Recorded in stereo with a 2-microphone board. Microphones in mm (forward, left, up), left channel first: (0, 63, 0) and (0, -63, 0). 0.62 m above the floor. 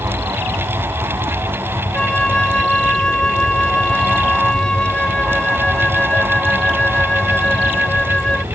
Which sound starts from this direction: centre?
A flute, at 1.9 s.